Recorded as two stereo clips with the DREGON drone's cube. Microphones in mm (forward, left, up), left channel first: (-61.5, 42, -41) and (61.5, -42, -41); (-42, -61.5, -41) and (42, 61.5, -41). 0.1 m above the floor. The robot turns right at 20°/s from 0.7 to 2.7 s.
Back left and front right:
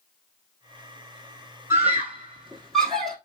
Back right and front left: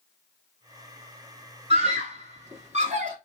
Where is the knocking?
I don't hear knocking.